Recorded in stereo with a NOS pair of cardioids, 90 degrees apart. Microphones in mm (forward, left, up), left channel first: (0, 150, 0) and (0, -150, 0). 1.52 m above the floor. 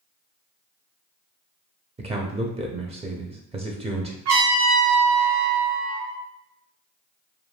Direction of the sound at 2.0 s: 20° right.